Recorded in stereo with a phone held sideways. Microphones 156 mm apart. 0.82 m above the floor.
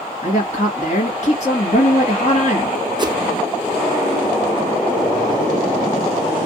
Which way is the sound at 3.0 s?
30° right (ahead or behind).